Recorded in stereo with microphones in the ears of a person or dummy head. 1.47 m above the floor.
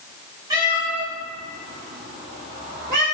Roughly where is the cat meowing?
Right.